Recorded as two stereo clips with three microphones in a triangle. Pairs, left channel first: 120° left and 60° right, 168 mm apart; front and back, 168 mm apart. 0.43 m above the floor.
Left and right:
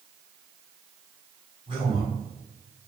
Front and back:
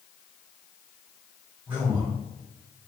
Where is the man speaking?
100° right, 1.7 m.